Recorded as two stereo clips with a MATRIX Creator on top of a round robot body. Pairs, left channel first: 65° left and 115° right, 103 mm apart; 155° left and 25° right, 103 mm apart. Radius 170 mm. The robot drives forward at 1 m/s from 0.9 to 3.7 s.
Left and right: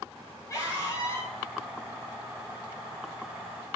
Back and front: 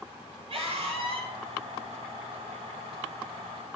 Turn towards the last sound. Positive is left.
turn(degrees=10)